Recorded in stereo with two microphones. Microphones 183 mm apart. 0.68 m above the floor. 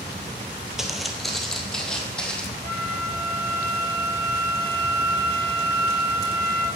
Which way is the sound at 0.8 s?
Centre (ahead or behind).